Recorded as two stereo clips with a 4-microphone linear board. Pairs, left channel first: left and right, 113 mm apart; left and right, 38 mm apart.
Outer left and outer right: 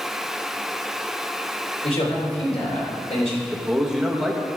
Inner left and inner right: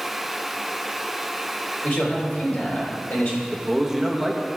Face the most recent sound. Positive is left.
turn(degrees=-5)  # may be behind; listen again after turning